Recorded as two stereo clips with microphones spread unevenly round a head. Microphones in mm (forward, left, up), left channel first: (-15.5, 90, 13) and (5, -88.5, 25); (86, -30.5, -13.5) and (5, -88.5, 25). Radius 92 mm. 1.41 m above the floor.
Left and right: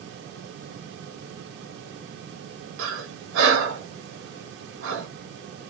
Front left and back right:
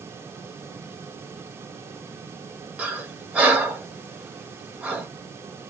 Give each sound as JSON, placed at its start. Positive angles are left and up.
{"t": 2.8, "sound": "breathing", "azimuth_deg": -60, "distance_m": 0.9}